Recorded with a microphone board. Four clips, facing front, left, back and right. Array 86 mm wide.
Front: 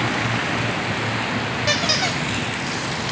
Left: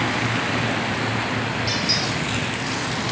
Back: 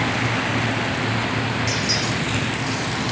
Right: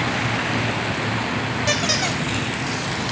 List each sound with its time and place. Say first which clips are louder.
1.7 s a squeak: right 2 dB, front 2 dB; 40° right, 1.4 m